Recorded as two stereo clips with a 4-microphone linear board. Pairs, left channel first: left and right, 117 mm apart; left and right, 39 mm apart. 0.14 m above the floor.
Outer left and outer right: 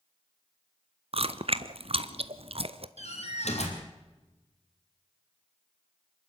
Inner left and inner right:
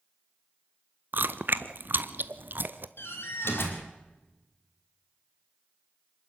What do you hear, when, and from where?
1.1 s chewing: 55° right (ahead or behind), 0.8 m
3.0 s a door slam: 70° left (ahead or behind), 3.5 m